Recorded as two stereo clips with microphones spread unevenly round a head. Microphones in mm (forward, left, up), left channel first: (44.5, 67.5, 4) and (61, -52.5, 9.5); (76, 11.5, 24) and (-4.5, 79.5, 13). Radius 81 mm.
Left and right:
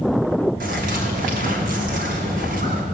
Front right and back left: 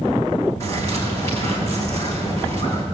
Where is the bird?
110° right, 3.5 m.